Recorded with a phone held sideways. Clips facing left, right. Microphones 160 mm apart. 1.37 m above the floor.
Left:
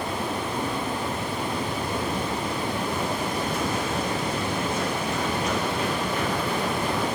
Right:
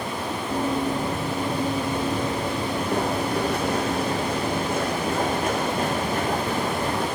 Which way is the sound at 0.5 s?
55° right (ahead or behind).